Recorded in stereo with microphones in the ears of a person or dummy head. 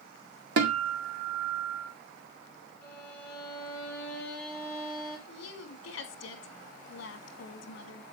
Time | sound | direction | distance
0.6 | a guitar | 65° right (ahead or behind) | 1.7 m
2.8 | a violin | 10° left (ahead or behind) | 3.5 m
5.3 | a woman speaking | 70° left (ahead or behind) | 2.5 m